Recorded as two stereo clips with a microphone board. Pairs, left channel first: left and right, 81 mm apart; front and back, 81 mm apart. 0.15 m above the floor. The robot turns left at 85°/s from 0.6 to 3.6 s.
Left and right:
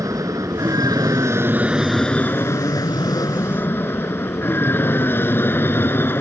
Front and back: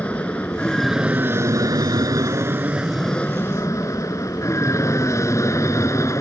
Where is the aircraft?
70° right; by 6.2 s 35° left.